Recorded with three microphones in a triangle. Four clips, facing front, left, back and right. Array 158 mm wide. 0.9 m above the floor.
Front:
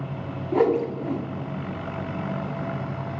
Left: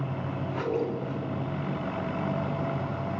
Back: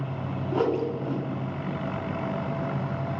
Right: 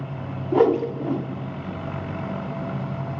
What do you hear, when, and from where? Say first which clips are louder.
0.5 s a whoosh: right 12 dB, front 5 dB; 70° right, 2.5 m